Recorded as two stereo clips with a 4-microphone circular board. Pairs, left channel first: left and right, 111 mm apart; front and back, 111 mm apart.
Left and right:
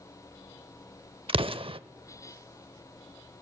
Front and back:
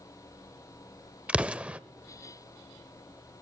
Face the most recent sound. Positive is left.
turn(degrees=-100)